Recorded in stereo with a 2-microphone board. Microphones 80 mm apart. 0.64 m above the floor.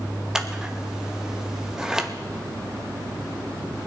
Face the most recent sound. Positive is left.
turn(degrees=-10)  # may be behind; listen again after turning